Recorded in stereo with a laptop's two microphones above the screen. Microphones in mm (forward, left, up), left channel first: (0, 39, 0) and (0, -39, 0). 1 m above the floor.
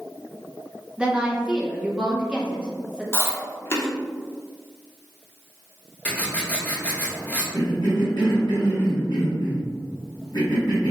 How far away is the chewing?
About 0.9 m.